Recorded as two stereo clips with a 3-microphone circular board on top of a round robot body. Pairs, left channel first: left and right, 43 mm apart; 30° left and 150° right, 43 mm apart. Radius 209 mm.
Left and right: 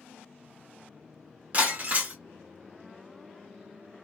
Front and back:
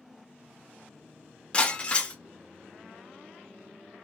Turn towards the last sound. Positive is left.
turn(degrees=-35)